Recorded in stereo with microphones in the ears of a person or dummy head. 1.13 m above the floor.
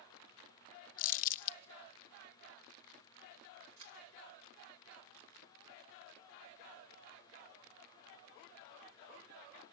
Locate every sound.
1.0 s crumpling: 45° left (ahead or behind), 0.7 m
3.8 s a camera shutter: 75° right (ahead or behind), 4 m